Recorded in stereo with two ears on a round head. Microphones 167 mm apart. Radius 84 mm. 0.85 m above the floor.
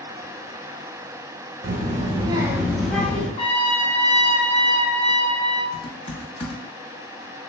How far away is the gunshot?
No gunshot in this recording.